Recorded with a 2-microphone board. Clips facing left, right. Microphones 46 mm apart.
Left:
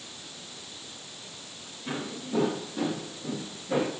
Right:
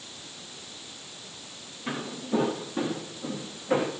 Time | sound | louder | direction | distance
1.9 | footsteps | right 3 dB | 45° right (ahead or behind) | 7.5 m